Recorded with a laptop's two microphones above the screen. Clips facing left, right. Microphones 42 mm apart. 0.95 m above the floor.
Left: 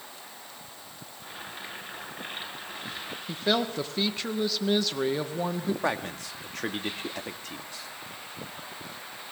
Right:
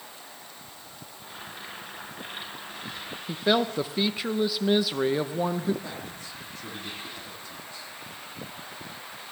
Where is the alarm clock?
I don't hear an alarm clock.